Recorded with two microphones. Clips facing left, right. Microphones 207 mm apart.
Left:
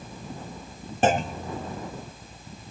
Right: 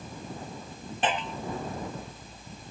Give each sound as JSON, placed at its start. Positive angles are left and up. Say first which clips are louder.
{"t": 1.0, "sound": "a clunk", "louder": "left 7 dB", "side_deg": 45}